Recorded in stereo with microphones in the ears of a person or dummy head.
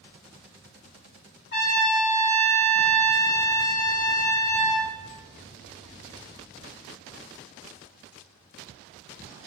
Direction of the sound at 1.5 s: 50° left (ahead or behind).